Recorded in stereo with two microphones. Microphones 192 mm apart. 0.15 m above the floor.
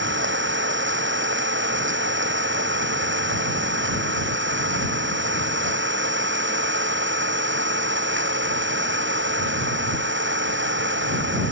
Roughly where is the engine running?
Right.